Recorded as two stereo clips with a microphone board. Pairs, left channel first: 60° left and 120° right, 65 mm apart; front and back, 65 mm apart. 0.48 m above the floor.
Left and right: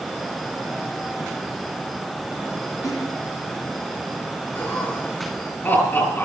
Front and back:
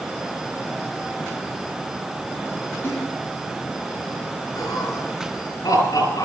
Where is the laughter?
5° left, 8.5 m.